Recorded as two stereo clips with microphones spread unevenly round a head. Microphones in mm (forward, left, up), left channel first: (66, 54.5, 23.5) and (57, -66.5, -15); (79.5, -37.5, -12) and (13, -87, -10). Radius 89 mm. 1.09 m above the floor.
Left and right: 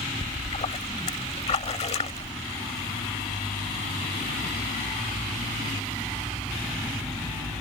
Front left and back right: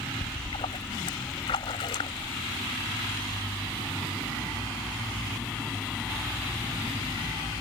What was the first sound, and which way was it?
A splash, 70° left.